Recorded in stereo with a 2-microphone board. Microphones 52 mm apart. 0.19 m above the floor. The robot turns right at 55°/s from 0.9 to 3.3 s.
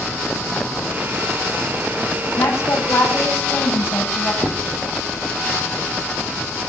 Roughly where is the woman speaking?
Left.